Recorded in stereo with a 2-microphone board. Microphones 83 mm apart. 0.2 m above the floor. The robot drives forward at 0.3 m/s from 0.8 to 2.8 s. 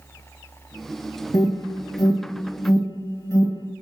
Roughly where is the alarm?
Left.